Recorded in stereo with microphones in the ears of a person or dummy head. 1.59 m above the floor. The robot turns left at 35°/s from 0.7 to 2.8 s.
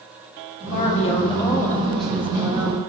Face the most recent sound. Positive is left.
turn(degrees=-30)